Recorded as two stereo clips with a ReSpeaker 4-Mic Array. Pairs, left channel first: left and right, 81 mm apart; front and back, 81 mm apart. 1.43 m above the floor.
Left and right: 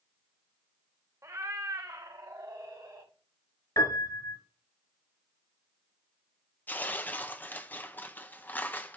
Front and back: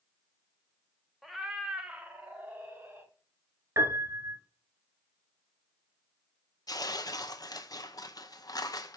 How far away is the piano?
About 3 m.